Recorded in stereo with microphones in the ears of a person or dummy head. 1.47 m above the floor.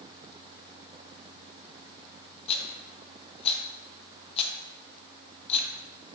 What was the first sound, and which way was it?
A rattle, 35° left (ahead or behind).